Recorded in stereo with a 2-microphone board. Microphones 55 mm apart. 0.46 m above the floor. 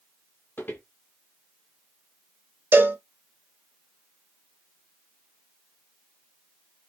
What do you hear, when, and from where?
0.6 s footsteps: 40° left (ahead or behind), 0.8 m
2.7 s a cowbell: 40° right (ahead or behind), 0.5 m